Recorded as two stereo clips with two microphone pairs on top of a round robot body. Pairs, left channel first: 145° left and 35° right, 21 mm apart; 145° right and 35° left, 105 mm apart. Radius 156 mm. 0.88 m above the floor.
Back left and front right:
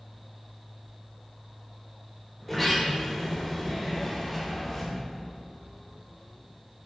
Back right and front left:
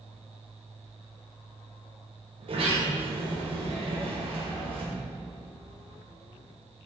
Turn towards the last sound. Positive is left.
turn(degrees=65)